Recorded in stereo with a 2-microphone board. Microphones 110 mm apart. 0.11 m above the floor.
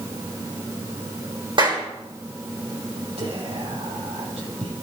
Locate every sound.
1.6 s a clap: 45° right (ahead or behind), 4 m
3.2 s whispering: 70° right (ahead or behind), 5 m